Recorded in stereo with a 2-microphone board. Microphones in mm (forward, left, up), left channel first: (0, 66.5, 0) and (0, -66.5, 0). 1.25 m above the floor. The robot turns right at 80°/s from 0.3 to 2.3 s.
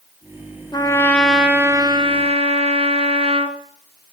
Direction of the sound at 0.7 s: 135° left.